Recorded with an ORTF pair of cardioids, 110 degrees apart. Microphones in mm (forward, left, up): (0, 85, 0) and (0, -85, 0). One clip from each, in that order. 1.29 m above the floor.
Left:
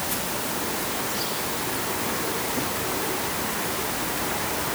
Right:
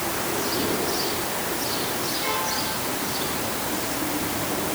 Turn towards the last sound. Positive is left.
No sound to turn to.